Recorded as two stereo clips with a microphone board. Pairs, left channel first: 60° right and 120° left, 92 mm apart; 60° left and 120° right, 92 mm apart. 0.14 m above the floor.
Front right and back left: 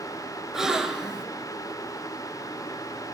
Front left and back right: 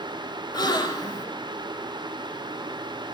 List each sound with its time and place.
0.5 s a gasp: 35° left, 0.6 m